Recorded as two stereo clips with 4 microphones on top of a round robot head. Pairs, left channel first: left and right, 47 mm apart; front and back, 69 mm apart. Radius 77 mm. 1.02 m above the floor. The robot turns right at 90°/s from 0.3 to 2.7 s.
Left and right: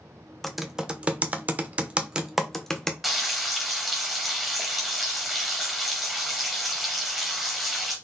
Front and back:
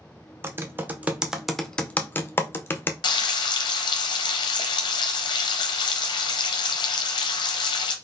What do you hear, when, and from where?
0.4 s typing on a keyboard: 175° left, 0.6 m; by 2.9 s 20° left, 0.6 m
3.0 s frying: straight ahead, 0.6 m